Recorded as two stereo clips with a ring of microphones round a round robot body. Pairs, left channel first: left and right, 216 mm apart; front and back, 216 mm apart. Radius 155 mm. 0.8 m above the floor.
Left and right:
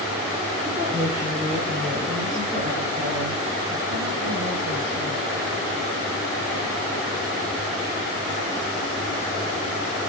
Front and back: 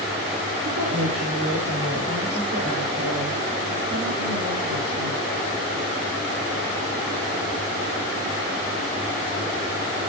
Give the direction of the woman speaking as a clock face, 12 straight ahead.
6 o'clock.